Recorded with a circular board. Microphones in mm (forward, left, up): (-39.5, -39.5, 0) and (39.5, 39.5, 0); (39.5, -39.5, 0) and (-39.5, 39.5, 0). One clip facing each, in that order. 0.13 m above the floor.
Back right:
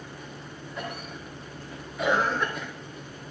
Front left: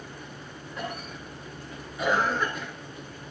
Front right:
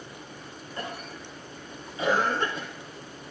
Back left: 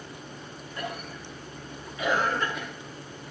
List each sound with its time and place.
0.8 s a cough: 45° right, 1.7 m